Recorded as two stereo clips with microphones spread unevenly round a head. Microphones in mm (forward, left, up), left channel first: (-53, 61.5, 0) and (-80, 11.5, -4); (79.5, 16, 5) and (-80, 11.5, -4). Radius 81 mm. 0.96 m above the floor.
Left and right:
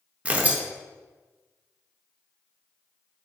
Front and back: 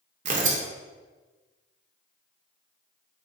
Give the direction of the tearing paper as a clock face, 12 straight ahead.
6 o'clock.